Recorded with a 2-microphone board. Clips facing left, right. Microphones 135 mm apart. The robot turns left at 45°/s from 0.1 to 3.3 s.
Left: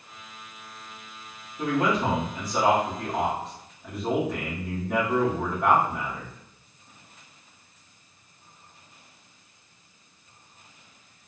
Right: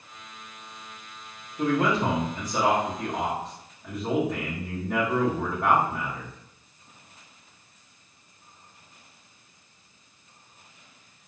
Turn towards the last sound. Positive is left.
turn(degrees=0)  # may be behind; listen again after turning